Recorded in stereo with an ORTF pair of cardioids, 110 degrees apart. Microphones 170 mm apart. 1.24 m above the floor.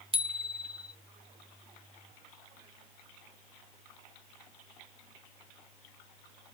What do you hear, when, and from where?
0.1 s a bicycle bell: 35° right